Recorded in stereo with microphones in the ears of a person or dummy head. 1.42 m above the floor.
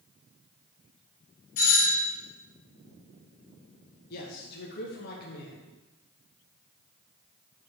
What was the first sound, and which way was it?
A doorbell, 45° left (ahead or behind).